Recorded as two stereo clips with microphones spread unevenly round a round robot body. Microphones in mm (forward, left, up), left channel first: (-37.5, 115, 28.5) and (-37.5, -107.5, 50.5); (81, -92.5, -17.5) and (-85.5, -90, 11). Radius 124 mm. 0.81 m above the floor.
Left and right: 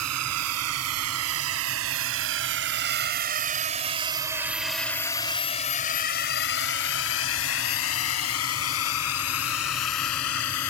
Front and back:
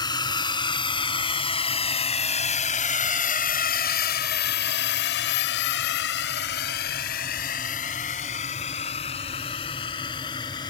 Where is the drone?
65° right; by 10.7 s 75° left.